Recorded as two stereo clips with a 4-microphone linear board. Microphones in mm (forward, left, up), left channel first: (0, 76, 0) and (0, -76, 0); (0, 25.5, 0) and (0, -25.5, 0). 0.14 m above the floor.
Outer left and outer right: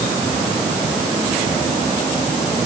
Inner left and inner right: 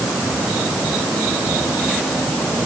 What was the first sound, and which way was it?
Only background noise.